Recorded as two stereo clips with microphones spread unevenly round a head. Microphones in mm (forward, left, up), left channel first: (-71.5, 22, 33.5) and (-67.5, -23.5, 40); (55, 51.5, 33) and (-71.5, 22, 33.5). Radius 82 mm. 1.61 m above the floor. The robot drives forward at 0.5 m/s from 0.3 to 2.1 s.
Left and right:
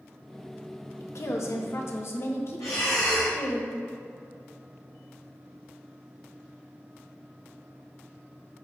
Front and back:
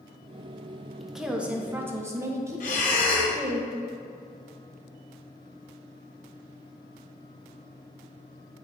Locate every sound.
1.0 s a woman speaking: 105° left, 1.3 m; by 3.6 s 125° left, 1.5 m
2.6 s breathing: 35° left, 1.9 m